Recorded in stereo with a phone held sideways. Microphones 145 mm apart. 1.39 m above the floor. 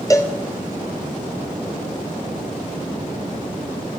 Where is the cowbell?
20° left (ahead or behind), 0.7 m.